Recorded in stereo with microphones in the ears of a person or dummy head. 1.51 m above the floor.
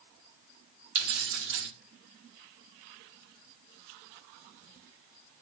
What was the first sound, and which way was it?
Keys jangling, 65° right (ahead or behind).